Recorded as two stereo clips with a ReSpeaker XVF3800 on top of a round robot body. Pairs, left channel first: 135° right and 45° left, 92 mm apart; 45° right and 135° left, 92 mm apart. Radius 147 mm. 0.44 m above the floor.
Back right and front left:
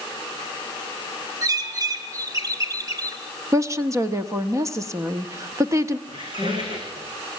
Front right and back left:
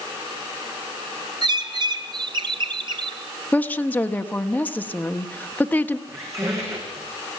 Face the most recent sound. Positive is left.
turn(degrees=80)